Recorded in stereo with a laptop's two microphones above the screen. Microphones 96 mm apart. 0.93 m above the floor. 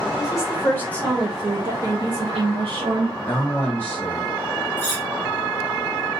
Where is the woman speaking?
35° left (ahead or behind), 1.3 m; by 3.1 s 75° right (ahead or behind), 1.3 m.